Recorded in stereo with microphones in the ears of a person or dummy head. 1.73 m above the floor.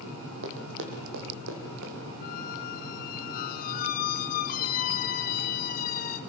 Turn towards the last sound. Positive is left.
turn(degrees=45)  # may be behind; listen again after turning